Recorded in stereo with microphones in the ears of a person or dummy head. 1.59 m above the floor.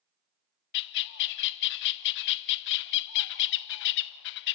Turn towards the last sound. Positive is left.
turn(degrees=65)  # may be behind; listen again after turning